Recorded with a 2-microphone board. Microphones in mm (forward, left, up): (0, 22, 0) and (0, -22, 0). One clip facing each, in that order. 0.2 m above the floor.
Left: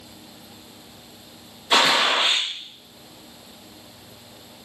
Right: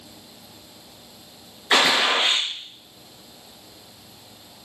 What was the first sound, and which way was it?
A gunshot, 65° right (ahead or behind).